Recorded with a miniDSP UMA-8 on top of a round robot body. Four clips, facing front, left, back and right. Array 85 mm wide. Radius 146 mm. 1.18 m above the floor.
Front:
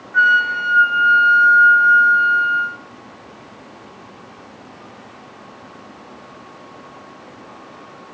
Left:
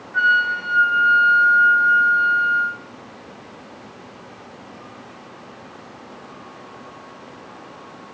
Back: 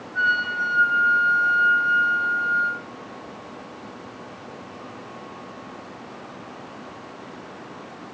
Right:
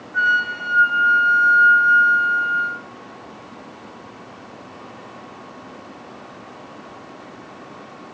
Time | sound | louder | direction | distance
0.1 | a flute | left 2 dB, front 8 dB | 10° left | 1.2 m